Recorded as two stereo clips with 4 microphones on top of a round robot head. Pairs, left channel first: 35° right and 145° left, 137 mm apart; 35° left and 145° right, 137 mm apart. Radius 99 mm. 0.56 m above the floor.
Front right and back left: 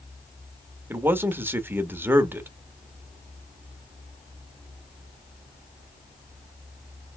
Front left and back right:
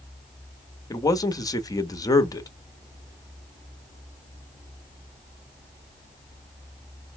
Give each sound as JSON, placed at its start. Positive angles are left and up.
{"t": 0.9, "sound": "a man speaking", "azimuth_deg": 80, "distance_m": 0.9}